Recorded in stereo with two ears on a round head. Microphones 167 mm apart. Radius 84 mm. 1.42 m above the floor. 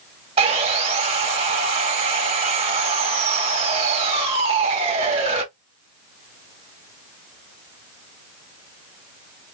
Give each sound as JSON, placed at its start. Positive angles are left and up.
{"t": 0.4, "sound": "sawing", "side_deg": -30, "distance_m": 1.4}